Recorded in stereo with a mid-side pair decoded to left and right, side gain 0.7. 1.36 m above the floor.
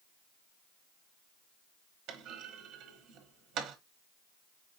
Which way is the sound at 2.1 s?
55° right.